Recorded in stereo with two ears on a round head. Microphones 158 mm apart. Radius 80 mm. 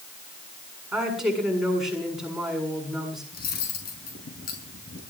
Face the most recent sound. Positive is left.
turn(degrees=60)  # may be behind; listen again after turning